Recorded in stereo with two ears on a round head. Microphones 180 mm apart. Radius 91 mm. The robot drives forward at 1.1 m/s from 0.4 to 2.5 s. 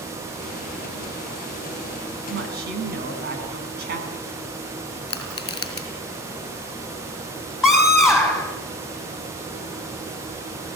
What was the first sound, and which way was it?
A woman speaking, 60° right (ahead or behind).